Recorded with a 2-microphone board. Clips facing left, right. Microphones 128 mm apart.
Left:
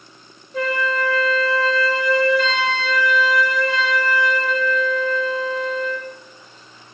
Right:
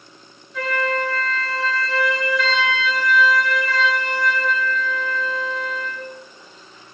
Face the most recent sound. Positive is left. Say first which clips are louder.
# left 1 dB
turn(degrees=40)  # may be behind; listen again after turning